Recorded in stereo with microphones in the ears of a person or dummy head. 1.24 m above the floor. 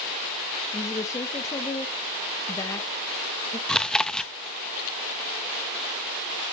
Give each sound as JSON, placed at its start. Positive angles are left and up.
{"t": 0.7, "sound": "a woman speaking", "side_deg": 20, "distance_m": 1.1}
{"t": 3.7, "sound": "chewing", "side_deg": 0, "distance_m": 0.8}